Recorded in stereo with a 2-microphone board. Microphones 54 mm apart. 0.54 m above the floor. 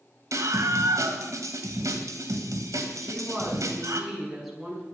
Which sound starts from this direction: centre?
A woman speaking, at 3.0 s.